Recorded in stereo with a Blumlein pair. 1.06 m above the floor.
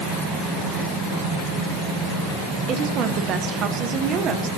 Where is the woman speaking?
30° right, 0.9 m.